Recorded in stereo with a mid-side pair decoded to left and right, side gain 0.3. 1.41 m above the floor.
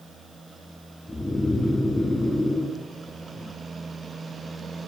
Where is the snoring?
30° left, 3 m.